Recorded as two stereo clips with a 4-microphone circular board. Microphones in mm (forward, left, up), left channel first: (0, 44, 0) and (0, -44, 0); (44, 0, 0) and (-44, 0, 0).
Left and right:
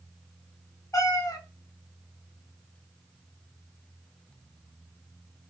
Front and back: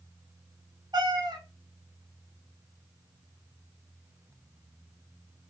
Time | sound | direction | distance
0.9 | a cat meowing | 140° left | 0.6 m